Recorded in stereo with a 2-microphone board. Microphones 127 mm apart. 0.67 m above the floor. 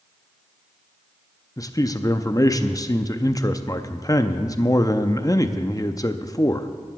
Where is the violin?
No violin in this recording.